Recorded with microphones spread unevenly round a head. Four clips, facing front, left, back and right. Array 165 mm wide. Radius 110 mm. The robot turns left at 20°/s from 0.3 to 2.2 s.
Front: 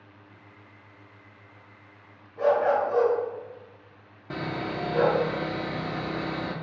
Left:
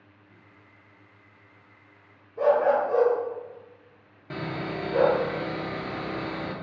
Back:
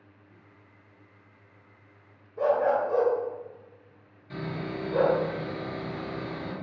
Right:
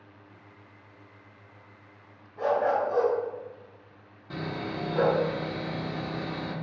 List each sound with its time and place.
2.4 s a dog barking: 165° left, 2 m
4.3 s sawing: 10° left, 1.2 m